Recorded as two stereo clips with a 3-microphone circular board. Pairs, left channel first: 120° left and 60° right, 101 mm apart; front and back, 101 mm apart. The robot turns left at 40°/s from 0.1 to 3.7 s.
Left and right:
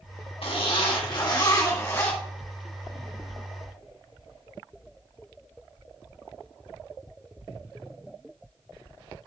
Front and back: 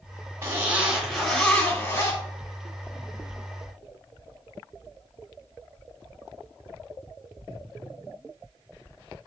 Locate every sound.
0.4 s a zipper: 115° left, 1.8 m; by 2.2 s 45° left, 1.8 m